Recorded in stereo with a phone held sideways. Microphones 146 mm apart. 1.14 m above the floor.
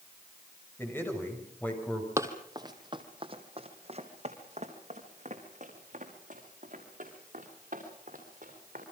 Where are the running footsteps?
20° right (ahead or behind), 2.5 m; by 8.8 s 65° right (ahead or behind), 8 m.